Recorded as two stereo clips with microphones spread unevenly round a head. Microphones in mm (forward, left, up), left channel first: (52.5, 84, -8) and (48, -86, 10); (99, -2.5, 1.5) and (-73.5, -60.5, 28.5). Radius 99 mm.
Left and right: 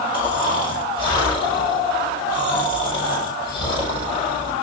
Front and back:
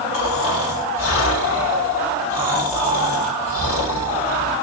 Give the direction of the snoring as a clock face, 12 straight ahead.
11 o'clock.